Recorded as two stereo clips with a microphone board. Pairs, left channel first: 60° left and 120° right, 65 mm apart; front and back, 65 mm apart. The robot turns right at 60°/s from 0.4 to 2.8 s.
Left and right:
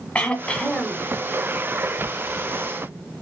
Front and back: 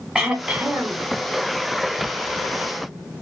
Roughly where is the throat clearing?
Left.